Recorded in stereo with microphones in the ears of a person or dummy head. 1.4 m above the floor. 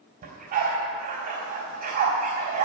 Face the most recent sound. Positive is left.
turn(degrees=-45)  # may be behind; listen again after turning